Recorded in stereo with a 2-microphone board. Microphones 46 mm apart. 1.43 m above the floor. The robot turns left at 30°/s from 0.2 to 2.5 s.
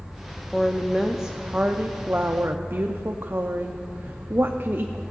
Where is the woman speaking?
10° left, 0.6 m; by 5.0 s 50° right, 0.6 m.